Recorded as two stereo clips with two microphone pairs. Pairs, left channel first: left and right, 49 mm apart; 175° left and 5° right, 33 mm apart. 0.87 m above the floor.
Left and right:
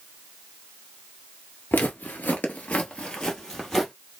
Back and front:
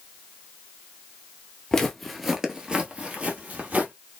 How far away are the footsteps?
About 1.1 m.